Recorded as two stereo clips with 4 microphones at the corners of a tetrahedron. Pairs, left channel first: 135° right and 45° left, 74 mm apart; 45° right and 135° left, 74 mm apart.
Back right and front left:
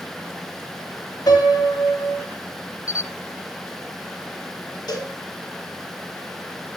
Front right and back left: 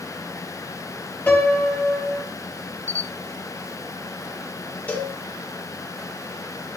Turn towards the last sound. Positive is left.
turn(degrees=-115)